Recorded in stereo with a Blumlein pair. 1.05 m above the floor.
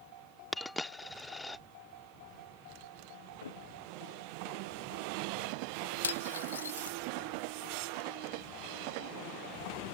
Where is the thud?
70° left.